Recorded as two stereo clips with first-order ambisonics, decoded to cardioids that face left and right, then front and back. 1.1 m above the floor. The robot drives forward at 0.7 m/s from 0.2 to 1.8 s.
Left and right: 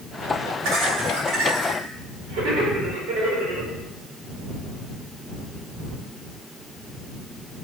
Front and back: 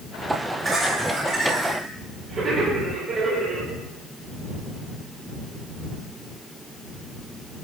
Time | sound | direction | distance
0.6 | laughter | 110° right | 4 m